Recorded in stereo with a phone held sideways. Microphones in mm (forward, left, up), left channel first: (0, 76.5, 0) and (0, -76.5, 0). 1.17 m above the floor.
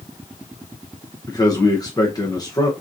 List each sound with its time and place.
1.3 s a man speaking: 25° left (ahead or behind), 0.9 m